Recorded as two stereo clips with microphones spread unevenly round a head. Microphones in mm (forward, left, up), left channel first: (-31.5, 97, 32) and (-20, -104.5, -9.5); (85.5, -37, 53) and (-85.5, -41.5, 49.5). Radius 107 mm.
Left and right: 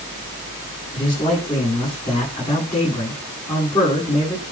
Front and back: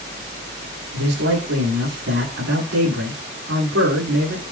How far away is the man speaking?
About 8.5 m.